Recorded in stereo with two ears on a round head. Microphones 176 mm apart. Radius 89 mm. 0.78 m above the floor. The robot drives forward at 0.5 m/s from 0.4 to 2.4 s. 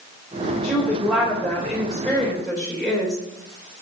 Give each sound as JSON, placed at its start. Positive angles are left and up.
{"t": 0.6, "sound": "a woman speaking", "side_deg": 0, "distance_m": 4.5}